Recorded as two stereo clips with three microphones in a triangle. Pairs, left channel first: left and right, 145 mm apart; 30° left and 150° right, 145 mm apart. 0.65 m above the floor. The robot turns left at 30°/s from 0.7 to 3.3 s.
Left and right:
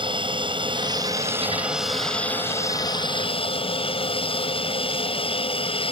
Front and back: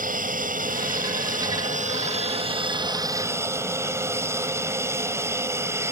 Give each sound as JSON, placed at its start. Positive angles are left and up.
{"t": 0.0, "sound": "an aircraft", "azimuth_deg": -145}